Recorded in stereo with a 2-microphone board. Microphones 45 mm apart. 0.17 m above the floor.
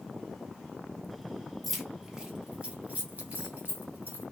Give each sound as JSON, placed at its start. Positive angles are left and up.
{"t": 1.6, "sound": "keys jangling", "side_deg": 0, "distance_m": 1.2}